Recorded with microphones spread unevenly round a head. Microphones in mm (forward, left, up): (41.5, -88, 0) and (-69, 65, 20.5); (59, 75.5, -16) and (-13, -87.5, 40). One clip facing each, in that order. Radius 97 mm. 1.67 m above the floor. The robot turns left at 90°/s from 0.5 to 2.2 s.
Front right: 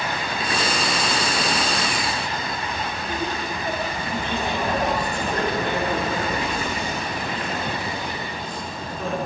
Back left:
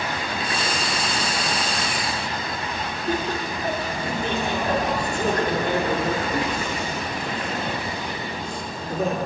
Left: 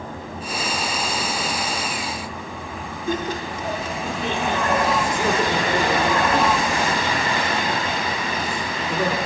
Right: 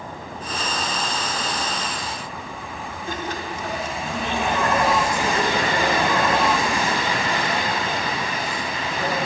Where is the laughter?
70° left, 5 m.